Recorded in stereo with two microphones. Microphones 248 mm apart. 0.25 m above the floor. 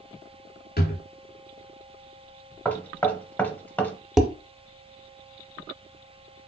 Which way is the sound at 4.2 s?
Centre (ahead or behind).